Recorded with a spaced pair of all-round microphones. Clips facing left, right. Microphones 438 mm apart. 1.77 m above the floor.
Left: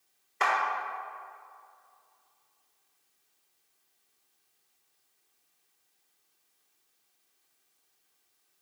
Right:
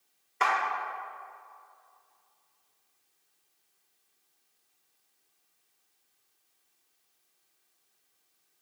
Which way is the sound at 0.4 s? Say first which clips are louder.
Even; centre (ahead or behind).